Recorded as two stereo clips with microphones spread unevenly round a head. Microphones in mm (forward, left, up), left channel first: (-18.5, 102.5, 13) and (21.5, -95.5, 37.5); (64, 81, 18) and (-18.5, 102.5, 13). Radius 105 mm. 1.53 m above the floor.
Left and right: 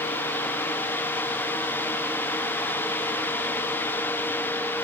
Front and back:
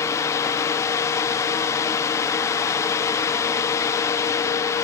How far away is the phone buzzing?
No phone buzzing in this recording.